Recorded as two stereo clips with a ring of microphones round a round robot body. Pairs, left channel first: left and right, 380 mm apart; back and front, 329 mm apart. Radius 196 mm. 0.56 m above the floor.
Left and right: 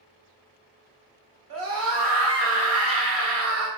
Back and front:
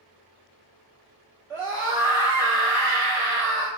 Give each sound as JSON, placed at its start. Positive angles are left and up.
{"t": 1.5, "sound": "a scream", "azimuth_deg": -80, "distance_m": 1.4}